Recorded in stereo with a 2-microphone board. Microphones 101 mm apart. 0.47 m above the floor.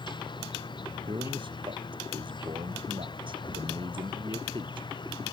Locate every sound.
0.0 s an insect: 50° left (ahead or behind)
1.1 s a man speaking: 55° right (ahead or behind)